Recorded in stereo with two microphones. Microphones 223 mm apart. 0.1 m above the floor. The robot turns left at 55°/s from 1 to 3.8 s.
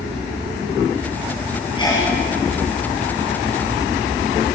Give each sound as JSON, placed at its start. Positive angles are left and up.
{"t": 1.8, "sound": "a sneeze", "side_deg": 25, "distance_m": 2.5}